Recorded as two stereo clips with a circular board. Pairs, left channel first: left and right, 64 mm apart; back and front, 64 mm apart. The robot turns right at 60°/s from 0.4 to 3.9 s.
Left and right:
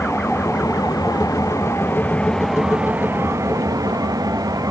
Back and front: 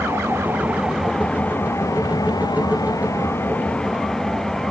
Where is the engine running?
50° left; by 4.7 s 100° right.